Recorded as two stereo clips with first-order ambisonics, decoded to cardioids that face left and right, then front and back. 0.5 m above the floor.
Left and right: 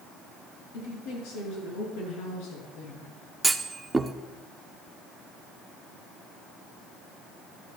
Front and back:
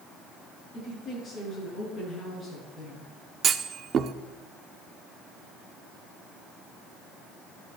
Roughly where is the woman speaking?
Left.